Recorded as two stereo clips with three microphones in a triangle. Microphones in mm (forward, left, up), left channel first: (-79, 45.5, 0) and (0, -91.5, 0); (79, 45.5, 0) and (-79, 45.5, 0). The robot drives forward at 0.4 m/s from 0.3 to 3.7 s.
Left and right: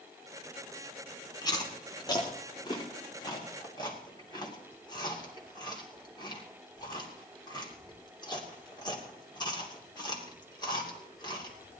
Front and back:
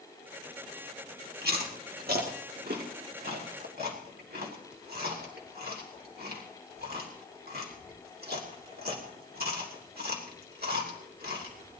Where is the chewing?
175° right, 1.9 m.